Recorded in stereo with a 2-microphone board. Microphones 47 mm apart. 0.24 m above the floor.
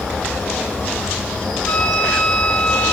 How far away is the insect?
About 4.5 m.